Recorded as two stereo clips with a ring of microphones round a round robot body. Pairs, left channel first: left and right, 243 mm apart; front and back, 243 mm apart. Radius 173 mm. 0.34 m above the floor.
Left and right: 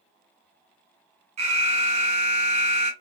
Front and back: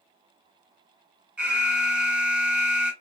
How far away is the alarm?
About 0.6 m.